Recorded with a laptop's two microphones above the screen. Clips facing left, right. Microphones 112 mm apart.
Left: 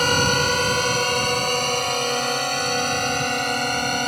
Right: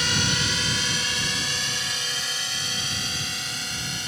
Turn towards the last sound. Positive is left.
turn(degrees=60)  # may be behind; listen again after turning